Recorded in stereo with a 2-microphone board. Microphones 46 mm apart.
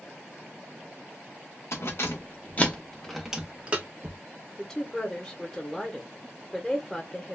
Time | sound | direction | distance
1.7 | keys jangling | 65° left (ahead or behind) | 0.9 m
4.6 | a woman speaking | 10° left (ahead or behind) | 0.7 m